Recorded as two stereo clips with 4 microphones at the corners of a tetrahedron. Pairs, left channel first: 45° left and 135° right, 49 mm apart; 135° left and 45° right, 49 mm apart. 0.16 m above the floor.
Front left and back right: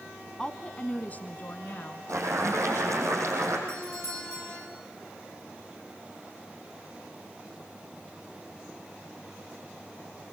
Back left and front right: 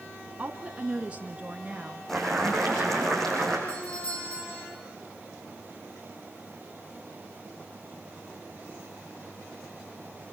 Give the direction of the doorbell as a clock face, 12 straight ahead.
5 o'clock.